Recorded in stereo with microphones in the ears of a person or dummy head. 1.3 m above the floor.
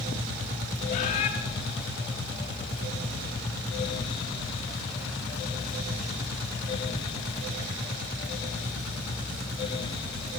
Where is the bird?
40° left (ahead or behind), 1.0 m.